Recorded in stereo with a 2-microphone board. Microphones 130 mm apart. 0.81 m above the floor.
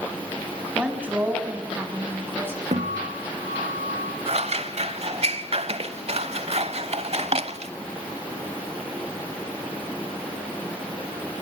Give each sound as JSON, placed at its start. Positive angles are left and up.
{"t": 0.8, "sound": "a woman speaking", "side_deg": -10, "distance_m": 5.5}
{"t": 2.7, "sound": "a guitar", "side_deg": -65, "distance_m": 6.5}
{"t": 4.3, "sound": "scissors", "side_deg": -55, "distance_m": 0.9}